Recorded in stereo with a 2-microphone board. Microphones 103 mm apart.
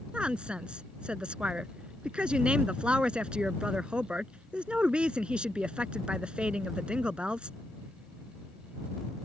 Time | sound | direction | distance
0.1 | a woman speaking | 10° right (ahead or behind) | ?